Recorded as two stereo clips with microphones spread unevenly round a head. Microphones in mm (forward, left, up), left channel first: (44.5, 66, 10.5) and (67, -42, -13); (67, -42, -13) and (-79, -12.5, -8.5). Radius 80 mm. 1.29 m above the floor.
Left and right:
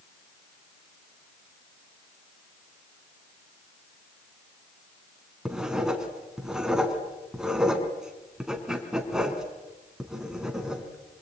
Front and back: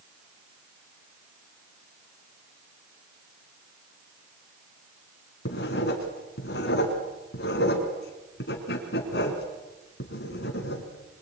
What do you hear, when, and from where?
5.5 s writing: 10° left, 3.5 m